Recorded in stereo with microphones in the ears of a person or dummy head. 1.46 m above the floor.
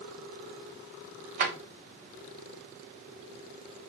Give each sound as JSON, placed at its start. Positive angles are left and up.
{"t": 1.4, "sound": "a drawer", "side_deg": -40, "distance_m": 1.0}